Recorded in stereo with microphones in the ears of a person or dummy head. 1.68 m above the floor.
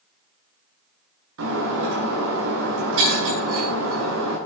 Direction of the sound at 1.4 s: 75° right (ahead or behind).